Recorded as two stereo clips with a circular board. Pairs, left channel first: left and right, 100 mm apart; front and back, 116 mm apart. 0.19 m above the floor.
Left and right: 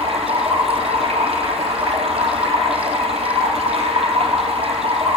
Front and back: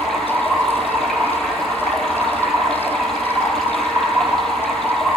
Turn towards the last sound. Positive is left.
turn(degrees=-85)